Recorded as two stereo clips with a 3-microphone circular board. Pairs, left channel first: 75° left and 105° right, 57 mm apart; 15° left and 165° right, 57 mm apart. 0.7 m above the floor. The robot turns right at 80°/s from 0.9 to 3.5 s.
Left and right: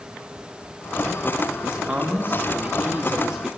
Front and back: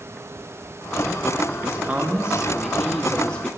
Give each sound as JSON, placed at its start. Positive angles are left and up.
{"t": 1.6, "sound": "a man speaking", "azimuth_deg": -175, "distance_m": 1.2}